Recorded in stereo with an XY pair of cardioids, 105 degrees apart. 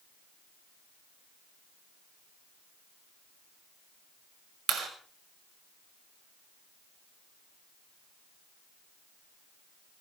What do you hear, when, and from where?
4.7 s a clap: 70° right, 6 m